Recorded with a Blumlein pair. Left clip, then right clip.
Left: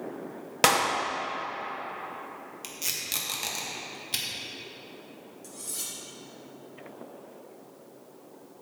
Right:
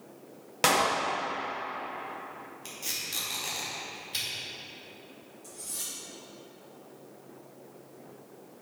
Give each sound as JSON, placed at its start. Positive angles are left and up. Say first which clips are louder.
{"t": 0.6, "sound": "a clap", "louder": "left 2 dB", "azimuth_deg": 15, "distance_m": 1.9}
{"t": 2.6, "sound": "tape being pulled", "louder": "left 2 dB", "azimuth_deg": 45, "distance_m": 1.9}
{"t": 5.4, "sound": "cutlery clinking", "louder": "left 1 dB", "azimuth_deg": 70, "distance_m": 2.5}